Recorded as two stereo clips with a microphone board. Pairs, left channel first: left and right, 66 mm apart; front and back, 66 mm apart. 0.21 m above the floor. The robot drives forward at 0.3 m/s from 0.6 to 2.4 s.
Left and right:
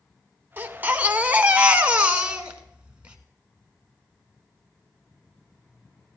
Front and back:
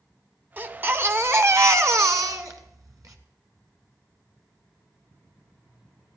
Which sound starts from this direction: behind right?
A baby crying, at 0.6 s.